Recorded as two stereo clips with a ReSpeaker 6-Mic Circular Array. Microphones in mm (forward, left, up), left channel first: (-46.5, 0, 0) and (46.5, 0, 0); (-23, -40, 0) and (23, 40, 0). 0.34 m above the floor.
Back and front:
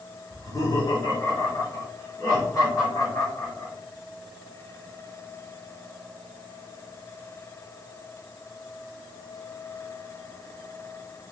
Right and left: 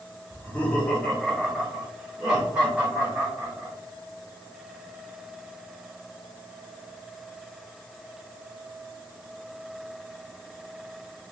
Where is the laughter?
170° right, 1.1 m; by 3.7 s 130° left, 2.5 m.